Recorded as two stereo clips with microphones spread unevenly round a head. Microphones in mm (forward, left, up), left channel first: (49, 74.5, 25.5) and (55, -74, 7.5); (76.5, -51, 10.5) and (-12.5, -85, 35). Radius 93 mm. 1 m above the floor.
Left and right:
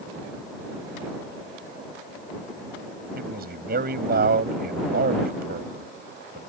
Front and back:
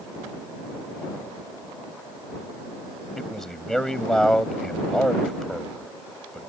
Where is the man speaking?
65° right.